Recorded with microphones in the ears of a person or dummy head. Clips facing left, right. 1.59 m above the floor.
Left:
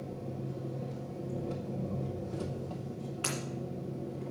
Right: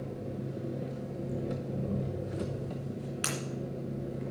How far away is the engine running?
About 0.7 m.